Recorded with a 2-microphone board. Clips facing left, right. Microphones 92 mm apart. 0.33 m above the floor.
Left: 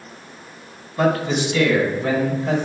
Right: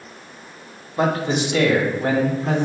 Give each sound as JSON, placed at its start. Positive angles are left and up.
{"t": 1.0, "sound": "a man speaking", "side_deg": -20, "distance_m": 0.9}